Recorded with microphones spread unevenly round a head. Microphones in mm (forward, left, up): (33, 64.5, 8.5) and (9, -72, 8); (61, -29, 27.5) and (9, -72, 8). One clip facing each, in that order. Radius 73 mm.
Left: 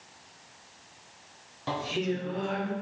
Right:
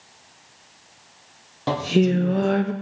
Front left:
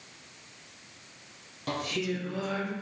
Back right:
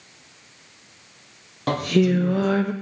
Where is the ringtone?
No ringtone in this recording.